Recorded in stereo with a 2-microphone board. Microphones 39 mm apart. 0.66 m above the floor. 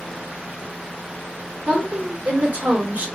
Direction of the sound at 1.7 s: 45° right (ahead or behind).